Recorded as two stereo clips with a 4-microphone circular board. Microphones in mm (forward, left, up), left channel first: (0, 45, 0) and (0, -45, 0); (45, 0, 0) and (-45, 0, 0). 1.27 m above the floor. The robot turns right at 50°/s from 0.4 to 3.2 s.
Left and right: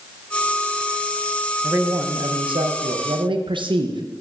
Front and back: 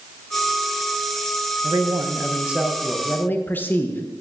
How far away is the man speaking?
About 0.5 m.